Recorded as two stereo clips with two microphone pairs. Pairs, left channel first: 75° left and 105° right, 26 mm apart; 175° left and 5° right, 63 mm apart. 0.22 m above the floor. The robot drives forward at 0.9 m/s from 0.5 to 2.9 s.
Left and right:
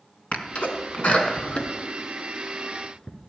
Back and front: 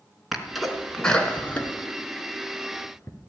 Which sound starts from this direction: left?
A sneeze, at 0.3 s.